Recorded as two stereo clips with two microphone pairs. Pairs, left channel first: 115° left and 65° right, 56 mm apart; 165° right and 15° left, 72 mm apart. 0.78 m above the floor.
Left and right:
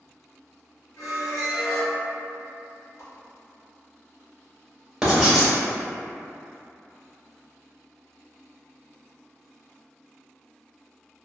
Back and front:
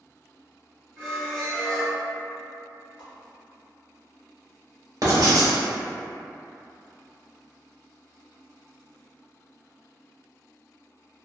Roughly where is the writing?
Ahead.